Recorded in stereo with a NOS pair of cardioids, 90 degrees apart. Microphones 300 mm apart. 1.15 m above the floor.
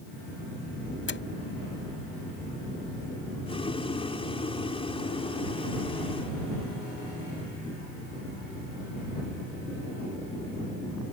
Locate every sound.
1.1 s a door slam: 40° left
3.5 s boiling: 20° left